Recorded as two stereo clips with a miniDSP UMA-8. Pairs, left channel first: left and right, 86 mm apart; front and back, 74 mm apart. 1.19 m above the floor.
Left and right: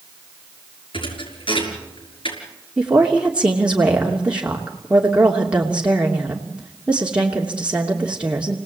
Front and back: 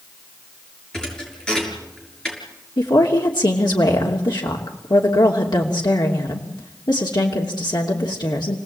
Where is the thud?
80° left, 6.5 m.